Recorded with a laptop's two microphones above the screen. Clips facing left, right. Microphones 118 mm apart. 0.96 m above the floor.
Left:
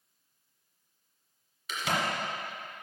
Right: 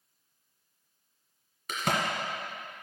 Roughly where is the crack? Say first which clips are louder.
Right 2 dB; right.